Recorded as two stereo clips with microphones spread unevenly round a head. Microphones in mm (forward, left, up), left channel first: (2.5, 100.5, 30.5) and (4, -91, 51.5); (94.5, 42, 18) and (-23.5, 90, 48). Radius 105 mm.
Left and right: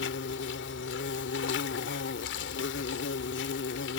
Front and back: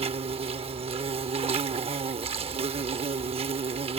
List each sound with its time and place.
0.0 s an insect: 125° left